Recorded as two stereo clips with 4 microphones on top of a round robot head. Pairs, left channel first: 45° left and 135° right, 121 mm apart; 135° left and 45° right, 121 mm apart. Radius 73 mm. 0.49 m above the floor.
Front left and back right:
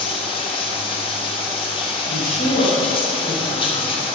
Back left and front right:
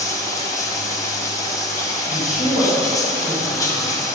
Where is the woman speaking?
55° left, 3.5 m.